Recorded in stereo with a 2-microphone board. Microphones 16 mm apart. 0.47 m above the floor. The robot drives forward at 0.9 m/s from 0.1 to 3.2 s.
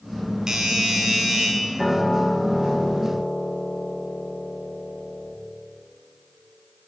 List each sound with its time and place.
0.5 s a doorbell: 35° right (ahead or behind), 1.6 m; by 1.5 s 25° right (ahead or behind), 2.0 m
1.8 s a piano: 25° left (ahead or behind), 1.3 m; by 5.4 s 75° left (ahead or behind), 0.6 m